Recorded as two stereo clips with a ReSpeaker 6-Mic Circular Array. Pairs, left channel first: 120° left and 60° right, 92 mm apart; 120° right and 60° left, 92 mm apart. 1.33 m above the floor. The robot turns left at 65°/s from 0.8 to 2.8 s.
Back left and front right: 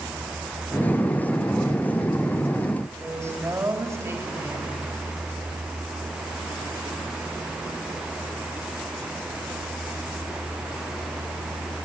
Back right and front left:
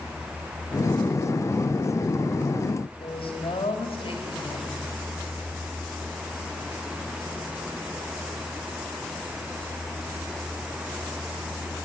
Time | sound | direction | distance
3.0 | a woman speaking | 120° right | 3.5 m